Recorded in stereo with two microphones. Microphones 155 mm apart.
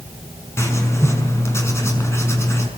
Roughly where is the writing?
Centre.